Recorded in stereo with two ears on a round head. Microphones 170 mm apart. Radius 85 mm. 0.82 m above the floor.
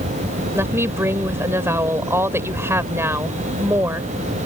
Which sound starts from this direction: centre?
A woman speaking, at 0.5 s.